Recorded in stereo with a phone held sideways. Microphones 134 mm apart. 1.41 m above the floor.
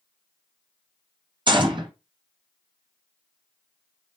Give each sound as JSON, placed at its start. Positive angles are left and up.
{"t": 1.5, "sound": "a gunshot", "side_deg": -35, "distance_m": 0.6}